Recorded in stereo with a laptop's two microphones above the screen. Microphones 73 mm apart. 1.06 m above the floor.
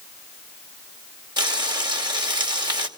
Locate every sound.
1.4 s frying: 75° right (ahead or behind), 2 m